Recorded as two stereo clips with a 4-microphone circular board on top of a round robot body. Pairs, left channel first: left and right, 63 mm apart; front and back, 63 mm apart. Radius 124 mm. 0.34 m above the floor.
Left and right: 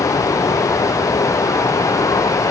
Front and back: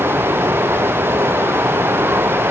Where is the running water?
125° left.